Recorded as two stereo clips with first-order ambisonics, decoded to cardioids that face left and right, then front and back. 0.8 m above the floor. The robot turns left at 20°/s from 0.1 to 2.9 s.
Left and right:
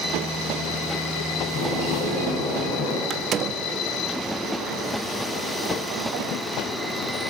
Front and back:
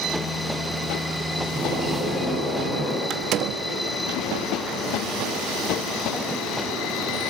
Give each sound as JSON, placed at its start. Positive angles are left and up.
{"t": 1.5, "sound": "a bird", "azimuth_deg": 85, "distance_m": 8.0}
{"t": 3.1, "sound": "a door slam", "azimuth_deg": -140, "distance_m": 1.0}